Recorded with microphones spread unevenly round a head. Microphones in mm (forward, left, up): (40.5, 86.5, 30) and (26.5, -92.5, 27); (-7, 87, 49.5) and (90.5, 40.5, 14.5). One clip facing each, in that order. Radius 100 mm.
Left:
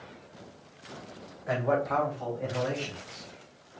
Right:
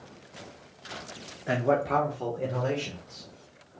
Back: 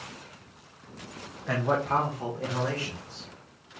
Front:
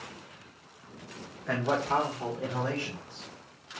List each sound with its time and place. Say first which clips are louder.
1.5 s a man speaking: right 2 dB, back 1 dB; 100° right, 0.8 m; by 3.8 s 120° right, 1.8 m